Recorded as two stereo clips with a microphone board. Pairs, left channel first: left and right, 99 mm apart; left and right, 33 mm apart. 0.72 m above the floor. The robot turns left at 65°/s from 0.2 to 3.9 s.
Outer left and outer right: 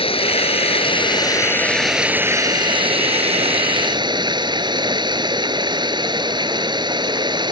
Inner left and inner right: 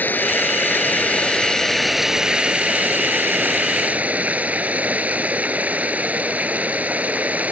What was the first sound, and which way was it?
Running water, 110° left.